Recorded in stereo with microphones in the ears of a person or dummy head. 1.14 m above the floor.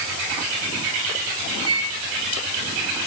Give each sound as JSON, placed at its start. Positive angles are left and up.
{"t": 1.7, "sound": "a microwave", "side_deg": -25, "distance_m": 7.5}